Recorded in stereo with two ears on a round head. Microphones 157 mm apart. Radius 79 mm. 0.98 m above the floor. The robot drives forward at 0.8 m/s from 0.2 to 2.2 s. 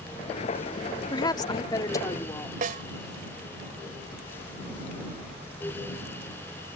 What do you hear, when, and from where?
1.1 s a woman speaking: 25° left (ahead or behind); by 2.6 s 20° left (ahead or behind)
2.6 s a snare drum: 50° right (ahead or behind)